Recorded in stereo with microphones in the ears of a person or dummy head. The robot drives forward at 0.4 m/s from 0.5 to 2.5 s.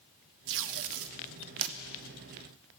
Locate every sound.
0.5 s tape being pulled: 65° right (ahead or behind), 0.6 m; by 1.8 s 55° right (ahead or behind), 0.6 m